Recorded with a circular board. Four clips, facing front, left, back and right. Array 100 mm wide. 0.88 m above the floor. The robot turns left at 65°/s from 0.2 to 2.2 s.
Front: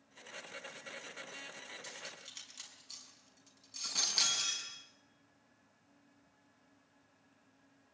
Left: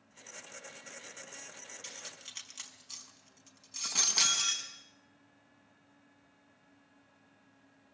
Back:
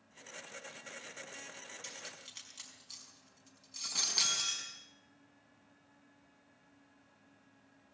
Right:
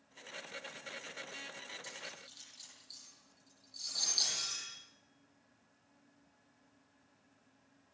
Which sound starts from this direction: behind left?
Cutlery clinking, at 1.8 s.